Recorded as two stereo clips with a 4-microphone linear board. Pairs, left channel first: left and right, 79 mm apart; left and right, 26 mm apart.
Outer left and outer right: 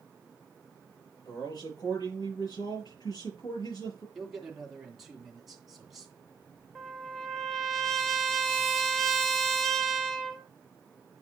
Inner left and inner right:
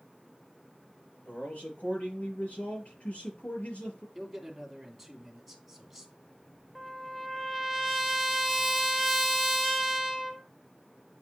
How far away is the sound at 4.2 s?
About 2.5 m.